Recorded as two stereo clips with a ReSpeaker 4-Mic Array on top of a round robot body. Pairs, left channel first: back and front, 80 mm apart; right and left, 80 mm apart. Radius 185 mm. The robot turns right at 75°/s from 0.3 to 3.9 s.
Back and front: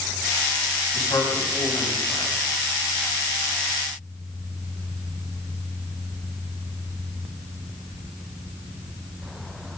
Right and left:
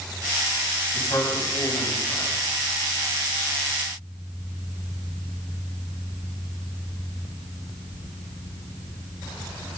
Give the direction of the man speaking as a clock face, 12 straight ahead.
5 o'clock.